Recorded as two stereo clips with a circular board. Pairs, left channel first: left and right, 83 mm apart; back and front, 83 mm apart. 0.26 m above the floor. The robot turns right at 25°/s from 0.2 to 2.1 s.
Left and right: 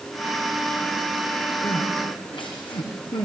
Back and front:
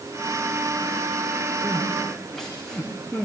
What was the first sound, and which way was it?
Crying, 85° left.